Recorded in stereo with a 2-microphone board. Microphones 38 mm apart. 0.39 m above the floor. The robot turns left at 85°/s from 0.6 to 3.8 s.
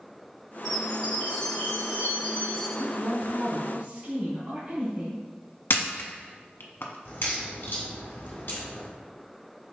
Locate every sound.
0.7 s a chime: 165° right, 1.8 m; by 2.7 s 25° left, 1.8 m
2.8 s a woman speaking: 10° right, 1.7 m; by 5.2 s 100° right, 1.7 m
5.7 s a camera shutter: 75° left (ahead or behind), 0.6 m
7.0 s a crack: 70° left (ahead or behind), 1.6 m